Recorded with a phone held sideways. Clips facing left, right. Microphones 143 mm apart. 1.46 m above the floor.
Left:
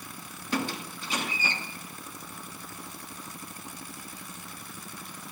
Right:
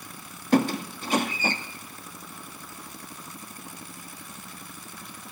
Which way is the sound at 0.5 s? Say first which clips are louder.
Right 9 dB; 50° right (ahead or behind).